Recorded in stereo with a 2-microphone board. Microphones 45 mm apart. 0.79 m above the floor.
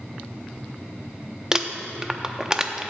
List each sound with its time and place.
1.5 s crumpling: 15° right (ahead or behind), 0.6 m